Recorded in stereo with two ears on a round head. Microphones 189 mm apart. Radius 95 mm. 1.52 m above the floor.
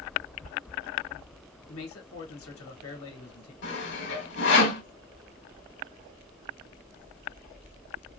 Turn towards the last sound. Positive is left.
turn(degrees=60)  # may be behind; listen again after turning